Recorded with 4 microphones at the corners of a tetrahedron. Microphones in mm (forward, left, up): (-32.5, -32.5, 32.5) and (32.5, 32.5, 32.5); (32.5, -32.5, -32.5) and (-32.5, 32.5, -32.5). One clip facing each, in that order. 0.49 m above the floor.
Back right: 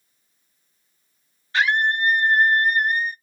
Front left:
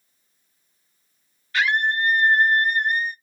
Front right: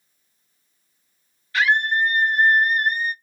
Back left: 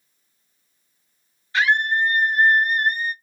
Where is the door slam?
I don't hear a door slam.